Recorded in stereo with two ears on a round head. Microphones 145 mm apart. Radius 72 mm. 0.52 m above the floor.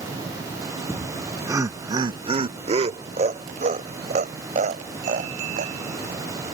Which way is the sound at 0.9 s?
Centre (ahead or behind).